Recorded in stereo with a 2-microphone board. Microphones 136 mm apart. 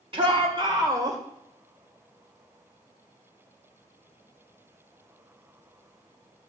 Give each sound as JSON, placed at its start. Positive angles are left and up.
{"t": 0.1, "sound": "a shout", "side_deg": -40, "distance_m": 1.8}